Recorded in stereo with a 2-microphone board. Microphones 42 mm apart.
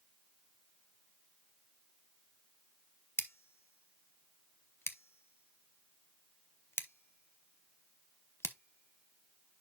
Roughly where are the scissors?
Left.